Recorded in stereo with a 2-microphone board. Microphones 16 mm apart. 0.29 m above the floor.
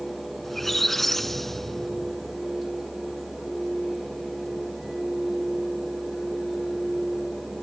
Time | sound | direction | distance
0.4 | a squeak | 15° left (ahead or behind) | 0.7 m